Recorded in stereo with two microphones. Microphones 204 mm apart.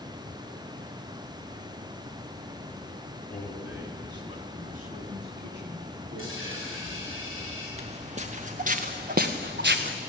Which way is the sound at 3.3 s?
10° left (ahead or behind).